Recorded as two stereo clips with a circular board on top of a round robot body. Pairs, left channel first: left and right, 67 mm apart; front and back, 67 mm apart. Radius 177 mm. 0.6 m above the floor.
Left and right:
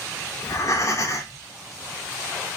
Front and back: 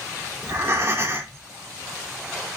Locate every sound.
0.4 s breathing: 130° left, 2.5 m